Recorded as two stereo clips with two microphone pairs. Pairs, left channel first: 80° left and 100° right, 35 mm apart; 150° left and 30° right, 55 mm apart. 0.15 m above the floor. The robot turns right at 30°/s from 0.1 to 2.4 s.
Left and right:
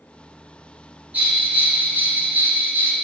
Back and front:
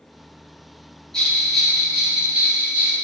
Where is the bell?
135° right, 2.5 m; by 2.9 s 100° right, 2.5 m.